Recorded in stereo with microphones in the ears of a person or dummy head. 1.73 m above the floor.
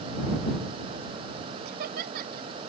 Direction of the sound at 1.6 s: 55° right (ahead or behind).